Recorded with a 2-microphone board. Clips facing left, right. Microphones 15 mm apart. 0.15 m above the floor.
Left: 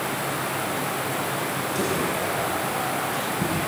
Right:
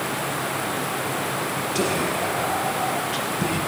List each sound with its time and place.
1.8 s whispering: 35° right (ahead or behind), 4 m